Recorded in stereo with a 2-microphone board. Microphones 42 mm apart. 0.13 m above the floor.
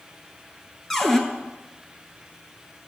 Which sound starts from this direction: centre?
A cupboard door, at 0.9 s.